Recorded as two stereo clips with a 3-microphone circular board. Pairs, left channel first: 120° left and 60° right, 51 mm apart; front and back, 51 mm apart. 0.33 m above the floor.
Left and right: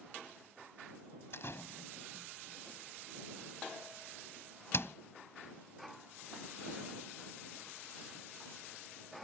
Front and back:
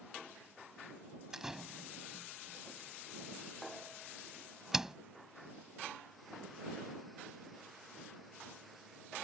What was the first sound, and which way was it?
A door slam, 100° left.